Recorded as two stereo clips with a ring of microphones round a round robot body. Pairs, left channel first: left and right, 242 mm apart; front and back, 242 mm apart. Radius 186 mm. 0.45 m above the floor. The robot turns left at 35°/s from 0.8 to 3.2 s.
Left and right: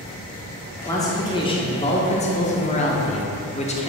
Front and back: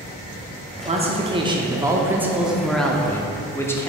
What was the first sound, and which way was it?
A man speaking, 155° left.